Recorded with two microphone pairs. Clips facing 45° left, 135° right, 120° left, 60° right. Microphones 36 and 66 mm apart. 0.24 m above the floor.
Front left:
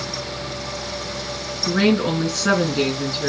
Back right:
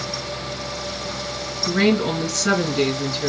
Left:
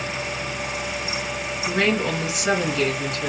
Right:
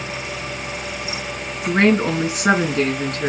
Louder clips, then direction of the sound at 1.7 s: Front left 1 dB, right 6 dB; 30° right.